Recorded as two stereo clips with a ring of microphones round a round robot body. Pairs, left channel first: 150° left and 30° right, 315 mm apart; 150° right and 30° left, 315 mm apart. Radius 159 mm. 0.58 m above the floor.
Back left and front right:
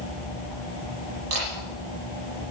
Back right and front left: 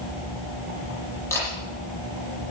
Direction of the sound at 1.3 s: 70° right.